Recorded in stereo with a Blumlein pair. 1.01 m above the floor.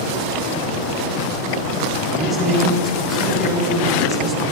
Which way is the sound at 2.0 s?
25° right.